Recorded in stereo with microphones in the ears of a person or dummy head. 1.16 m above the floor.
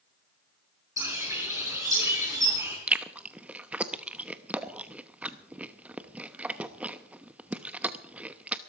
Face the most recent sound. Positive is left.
turn(degrees=-5)  # may be behind; listen again after turning